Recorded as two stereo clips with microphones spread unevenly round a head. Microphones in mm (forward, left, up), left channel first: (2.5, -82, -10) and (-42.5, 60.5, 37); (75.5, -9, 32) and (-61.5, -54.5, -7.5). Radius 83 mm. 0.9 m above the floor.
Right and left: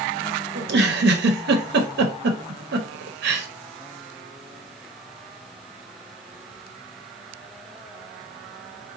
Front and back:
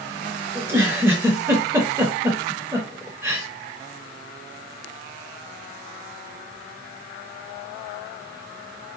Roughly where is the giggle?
Behind left.